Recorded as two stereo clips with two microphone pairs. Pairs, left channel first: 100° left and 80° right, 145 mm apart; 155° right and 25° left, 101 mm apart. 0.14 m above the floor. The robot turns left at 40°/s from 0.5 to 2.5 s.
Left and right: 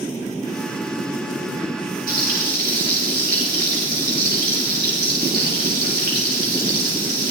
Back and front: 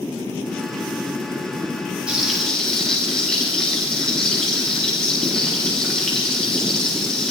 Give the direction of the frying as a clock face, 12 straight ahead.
2 o'clock.